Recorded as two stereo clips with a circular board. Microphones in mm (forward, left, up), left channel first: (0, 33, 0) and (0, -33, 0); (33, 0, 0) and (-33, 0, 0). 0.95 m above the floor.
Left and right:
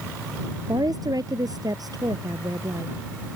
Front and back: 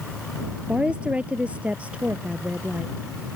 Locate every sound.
0.7 s a woman speaking: 105° right; by 2.9 s 110° right